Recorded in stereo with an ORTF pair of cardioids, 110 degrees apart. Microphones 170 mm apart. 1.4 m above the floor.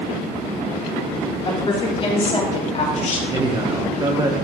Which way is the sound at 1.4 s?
30° left.